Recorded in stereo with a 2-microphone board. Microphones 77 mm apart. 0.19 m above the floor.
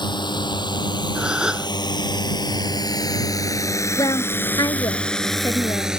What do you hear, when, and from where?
0.0 s a drone: 80° left; by 6.0 s 10° right (ahead or behind)
1.1 s a gasp: 10° right (ahead or behind)
4.0 s a woman speaking: 55° left (ahead or behind)